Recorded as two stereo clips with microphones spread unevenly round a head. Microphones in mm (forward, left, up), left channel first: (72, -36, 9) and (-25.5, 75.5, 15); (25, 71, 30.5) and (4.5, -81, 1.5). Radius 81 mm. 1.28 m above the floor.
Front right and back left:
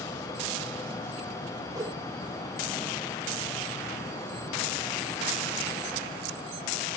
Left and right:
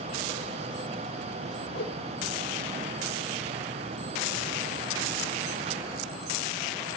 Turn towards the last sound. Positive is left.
turn(degrees=65)